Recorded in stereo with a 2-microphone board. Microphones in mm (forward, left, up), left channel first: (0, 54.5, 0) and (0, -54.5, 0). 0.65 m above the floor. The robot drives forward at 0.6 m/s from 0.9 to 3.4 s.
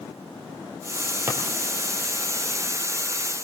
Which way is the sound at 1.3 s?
20° right (ahead or behind).